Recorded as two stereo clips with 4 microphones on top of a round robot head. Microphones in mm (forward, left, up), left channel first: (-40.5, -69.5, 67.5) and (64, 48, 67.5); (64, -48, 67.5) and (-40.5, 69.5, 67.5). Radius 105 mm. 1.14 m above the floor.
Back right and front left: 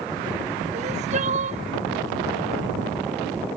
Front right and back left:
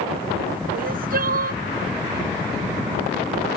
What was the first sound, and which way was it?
Crying, 100° left.